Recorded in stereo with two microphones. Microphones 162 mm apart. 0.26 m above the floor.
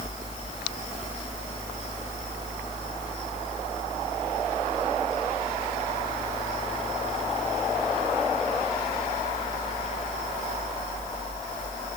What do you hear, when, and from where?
Only background noise.